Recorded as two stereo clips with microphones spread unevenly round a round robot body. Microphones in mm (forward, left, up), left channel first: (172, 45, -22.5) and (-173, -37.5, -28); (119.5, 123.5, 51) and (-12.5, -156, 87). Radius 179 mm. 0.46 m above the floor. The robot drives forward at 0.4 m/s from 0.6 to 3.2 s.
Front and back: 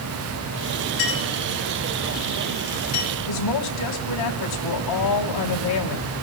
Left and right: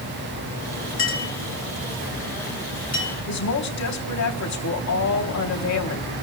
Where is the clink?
15° left, 5.5 m.